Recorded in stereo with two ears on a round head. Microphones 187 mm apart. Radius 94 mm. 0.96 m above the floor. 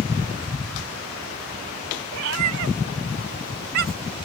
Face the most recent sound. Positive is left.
turn(degrees=-30)  # may be behind; listen again after turning